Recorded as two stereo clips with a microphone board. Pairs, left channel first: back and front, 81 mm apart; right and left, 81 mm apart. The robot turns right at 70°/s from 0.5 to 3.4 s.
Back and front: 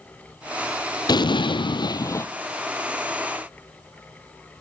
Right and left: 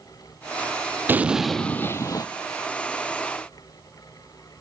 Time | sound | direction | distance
1.1 | an explosion | 155° left | 0.8 m